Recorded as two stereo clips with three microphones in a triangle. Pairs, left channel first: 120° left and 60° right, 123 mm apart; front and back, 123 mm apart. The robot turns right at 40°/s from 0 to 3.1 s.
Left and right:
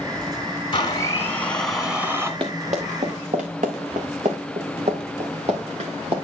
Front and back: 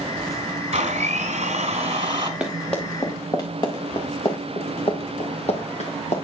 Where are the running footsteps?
100° right, 2.5 m; by 6.2 s 25° right, 2.5 m.